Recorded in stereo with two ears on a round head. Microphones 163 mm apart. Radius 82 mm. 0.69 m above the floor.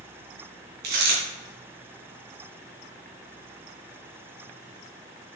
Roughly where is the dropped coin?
Right.